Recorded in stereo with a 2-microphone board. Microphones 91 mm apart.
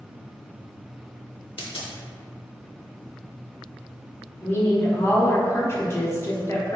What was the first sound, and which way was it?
A dropped coin, 75° left (ahead or behind).